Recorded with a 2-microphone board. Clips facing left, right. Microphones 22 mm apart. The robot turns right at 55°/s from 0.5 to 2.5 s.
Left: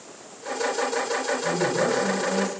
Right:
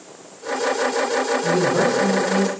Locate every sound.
1.4 s a man speaking: 90° right, 7.5 m; by 2.5 s 35° right, 7.5 m